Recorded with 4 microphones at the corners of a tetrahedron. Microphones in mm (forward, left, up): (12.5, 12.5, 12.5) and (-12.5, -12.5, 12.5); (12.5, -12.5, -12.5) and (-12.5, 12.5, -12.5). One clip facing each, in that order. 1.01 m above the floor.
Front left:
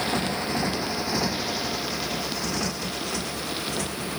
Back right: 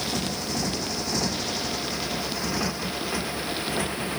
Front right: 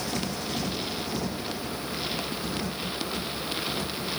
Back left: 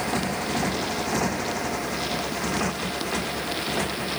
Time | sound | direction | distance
0.0 | a motorcycle | 95° left | ?